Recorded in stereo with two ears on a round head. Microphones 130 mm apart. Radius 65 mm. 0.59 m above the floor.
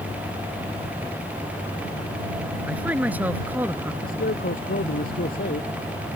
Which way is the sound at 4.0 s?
65° left (ahead or behind).